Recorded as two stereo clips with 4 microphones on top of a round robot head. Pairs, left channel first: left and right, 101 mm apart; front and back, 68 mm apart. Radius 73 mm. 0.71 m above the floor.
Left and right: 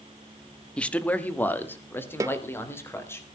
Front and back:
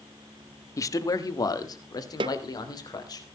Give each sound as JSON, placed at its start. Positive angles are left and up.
{"t": 0.8, "sound": "a man speaking", "azimuth_deg": 15, "distance_m": 1.5}
{"t": 2.2, "sound": "a snare drum", "azimuth_deg": -155, "distance_m": 0.7}